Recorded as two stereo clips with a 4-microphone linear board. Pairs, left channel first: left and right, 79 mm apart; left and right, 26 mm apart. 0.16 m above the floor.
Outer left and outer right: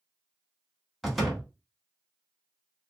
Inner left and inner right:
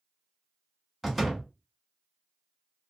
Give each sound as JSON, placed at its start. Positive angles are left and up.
{"t": 1.0, "sound": "a door slam", "side_deg": 0, "distance_m": 1.0}